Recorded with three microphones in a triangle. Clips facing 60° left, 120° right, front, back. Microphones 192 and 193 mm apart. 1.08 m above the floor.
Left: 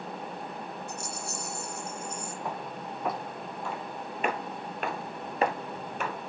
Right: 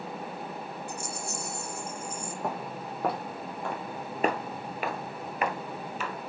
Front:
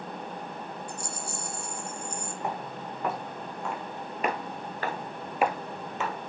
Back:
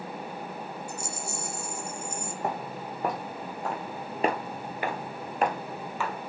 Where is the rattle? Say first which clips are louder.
Right 1 dB, back 1 dB; 125° right, 0.7 m.